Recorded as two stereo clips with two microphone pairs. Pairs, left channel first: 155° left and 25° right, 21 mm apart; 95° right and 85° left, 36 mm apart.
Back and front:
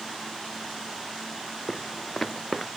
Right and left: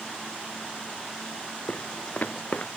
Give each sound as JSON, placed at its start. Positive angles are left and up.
{"t": 1.7, "sound": "footsteps", "azimuth_deg": -130}